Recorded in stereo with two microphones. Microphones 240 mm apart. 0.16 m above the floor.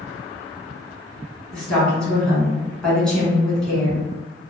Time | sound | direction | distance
1.5 | a woman speaking | 5° left (ahead or behind) | 1.5 m